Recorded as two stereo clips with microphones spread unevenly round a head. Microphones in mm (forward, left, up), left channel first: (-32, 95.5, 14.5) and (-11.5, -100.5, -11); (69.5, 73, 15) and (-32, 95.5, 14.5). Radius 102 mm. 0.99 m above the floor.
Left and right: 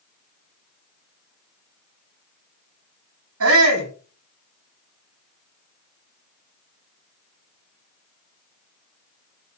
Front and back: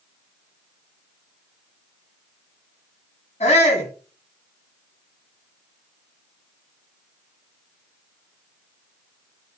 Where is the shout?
65° right, 6.5 m.